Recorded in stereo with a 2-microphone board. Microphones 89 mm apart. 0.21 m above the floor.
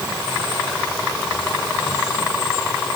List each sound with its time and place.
Only background noise.